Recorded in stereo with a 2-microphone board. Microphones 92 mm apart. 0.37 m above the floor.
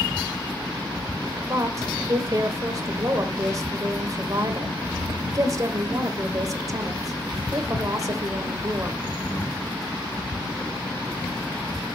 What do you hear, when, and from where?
1.5 s a woman speaking: 40° right (ahead or behind), 1.1 m